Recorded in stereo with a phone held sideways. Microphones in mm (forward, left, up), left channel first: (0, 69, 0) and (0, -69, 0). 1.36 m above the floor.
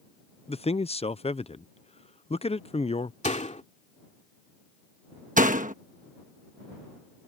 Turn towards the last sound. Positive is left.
turn(degrees=-70)  # may be behind; listen again after turning